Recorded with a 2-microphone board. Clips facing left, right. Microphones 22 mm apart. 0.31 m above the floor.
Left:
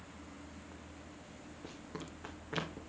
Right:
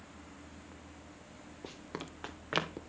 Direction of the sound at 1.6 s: 40° right (ahead or behind).